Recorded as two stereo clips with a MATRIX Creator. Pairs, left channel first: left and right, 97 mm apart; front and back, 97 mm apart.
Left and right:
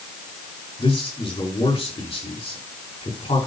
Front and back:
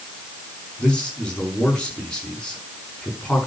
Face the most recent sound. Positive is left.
turn(degrees=80)